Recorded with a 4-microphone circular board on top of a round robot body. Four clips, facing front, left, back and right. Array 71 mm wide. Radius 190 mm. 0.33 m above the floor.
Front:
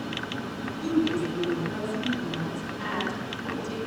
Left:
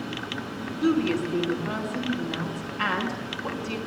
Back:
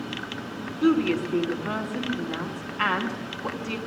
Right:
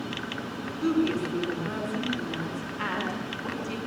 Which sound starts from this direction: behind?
A woman speaking, at 0.8 s.